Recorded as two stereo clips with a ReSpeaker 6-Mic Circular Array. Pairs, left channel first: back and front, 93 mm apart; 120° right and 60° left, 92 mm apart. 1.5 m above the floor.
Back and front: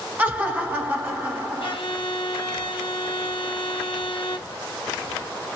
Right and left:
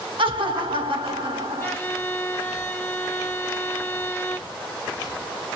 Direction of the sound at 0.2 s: 70° left.